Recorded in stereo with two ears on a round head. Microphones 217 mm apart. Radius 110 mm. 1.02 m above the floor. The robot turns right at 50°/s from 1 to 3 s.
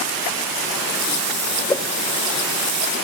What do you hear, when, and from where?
1.7 s a whoosh: 10° left (ahead or behind), 0.7 m